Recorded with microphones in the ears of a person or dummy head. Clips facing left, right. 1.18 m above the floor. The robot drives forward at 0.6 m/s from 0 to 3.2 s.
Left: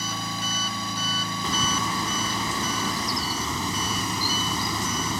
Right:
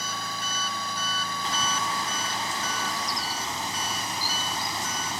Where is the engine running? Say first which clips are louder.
Left 3 dB; 80° left; by 5.2 s 85° left.